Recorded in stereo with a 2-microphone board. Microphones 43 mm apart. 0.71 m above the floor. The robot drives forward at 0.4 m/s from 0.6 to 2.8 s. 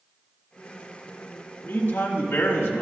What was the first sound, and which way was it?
A man speaking, 55° left (ahead or behind).